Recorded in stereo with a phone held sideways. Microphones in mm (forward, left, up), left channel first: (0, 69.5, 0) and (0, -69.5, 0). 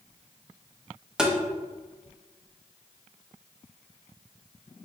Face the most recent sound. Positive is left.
turn(degrees=-5)  # may be behind; listen again after turning